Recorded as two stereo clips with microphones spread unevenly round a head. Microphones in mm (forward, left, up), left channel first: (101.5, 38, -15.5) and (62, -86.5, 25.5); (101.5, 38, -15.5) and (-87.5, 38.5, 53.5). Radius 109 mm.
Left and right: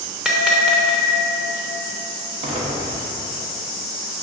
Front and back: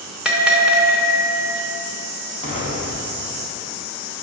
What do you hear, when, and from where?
0.2 s a bell: 145° right, 0.6 m
2.4 s an explosion: 65° right, 1.2 m